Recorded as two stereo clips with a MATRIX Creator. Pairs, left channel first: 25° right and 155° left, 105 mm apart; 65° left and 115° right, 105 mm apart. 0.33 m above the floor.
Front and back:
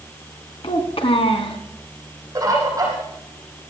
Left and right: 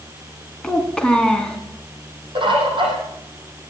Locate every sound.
0.6 s a child speaking: 15° right, 2.5 m
2.4 s a bird: 150° right, 7 m